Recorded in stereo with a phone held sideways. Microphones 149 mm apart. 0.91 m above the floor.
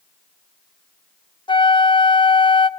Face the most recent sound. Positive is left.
turn(degrees=35)  # may be behind; listen again after turning